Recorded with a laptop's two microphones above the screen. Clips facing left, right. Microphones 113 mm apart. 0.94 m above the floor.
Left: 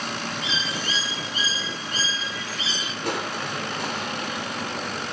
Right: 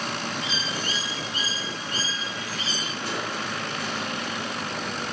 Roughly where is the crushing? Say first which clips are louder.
Left 4 dB; left.